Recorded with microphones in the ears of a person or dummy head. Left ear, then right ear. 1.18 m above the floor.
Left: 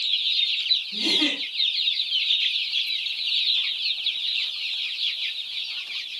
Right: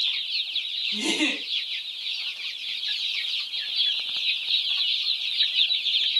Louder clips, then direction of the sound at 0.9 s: Left 2 dB; 85° right.